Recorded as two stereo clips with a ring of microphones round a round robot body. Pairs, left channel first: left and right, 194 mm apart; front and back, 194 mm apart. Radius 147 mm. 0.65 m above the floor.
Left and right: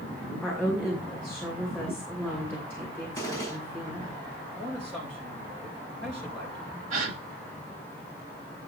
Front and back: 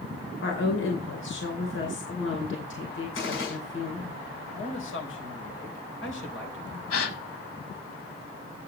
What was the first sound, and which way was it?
A woman speaking, 10° left.